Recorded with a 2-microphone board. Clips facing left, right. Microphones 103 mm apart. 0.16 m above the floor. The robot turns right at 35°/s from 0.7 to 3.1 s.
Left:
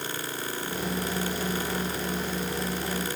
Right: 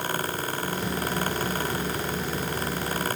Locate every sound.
Only background noise.